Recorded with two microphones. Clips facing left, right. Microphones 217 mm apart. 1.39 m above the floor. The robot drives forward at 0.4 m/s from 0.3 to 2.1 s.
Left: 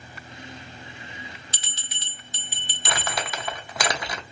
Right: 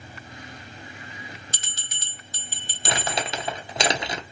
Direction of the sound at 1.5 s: 45° right (ahead or behind).